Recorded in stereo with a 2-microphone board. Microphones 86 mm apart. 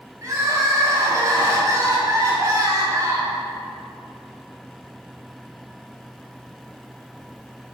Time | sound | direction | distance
0.2 | crying | 40° right (ahead or behind) | 2.5 m